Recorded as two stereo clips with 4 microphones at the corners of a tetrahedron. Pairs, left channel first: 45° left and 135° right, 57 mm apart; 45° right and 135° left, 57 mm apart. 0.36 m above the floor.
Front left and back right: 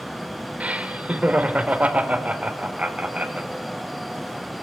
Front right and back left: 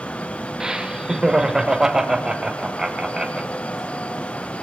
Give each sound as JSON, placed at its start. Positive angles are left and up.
{"t": 0.6, "sound": "laughter", "azimuth_deg": -160, "distance_m": 0.9}